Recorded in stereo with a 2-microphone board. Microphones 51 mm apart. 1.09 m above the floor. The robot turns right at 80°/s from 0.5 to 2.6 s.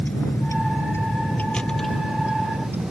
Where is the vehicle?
35° left (ahead or behind); by 2.9 s 45° right (ahead or behind).